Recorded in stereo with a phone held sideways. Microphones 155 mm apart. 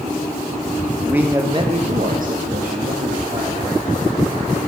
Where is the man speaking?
10° right (ahead or behind), 1.5 m; by 4.0 s 45° right (ahead or behind), 3 m.